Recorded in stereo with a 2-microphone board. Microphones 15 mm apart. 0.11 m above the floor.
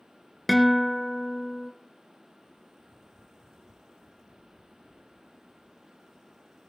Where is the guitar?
Centre (ahead or behind), 0.9 m.